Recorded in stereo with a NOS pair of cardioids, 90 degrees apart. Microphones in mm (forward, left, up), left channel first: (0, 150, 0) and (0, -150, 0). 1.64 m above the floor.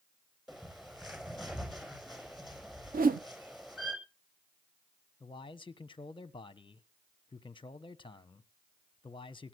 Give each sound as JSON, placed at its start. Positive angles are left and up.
{"t": 0.5, "sound": "a bird", "azimuth_deg": 0, "distance_m": 7.0}
{"t": 2.9, "sound": "a whoosh", "azimuth_deg": -30, "distance_m": 1.0}
{"t": 5.2, "sound": "a man speaking", "azimuth_deg": 15, "distance_m": 1.3}